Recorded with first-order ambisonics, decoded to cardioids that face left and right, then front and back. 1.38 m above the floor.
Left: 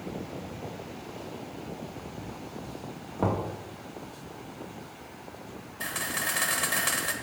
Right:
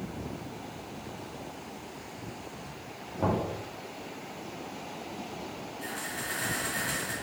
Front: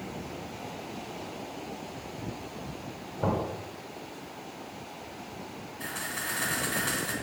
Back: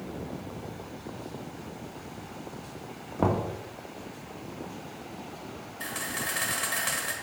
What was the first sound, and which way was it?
Knocking, 160° left.